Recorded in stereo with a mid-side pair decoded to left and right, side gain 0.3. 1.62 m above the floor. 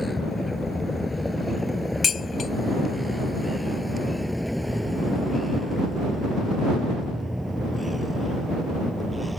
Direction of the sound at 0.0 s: 25° left.